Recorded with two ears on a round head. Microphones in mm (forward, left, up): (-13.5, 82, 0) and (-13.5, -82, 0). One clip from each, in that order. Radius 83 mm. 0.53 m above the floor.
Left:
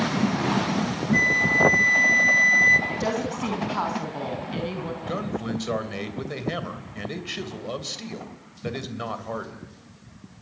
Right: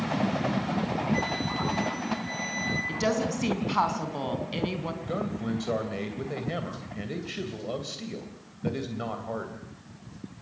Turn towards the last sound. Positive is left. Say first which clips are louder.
# left 4 dB
turn(degrees=30)  # may be behind; listen again after turning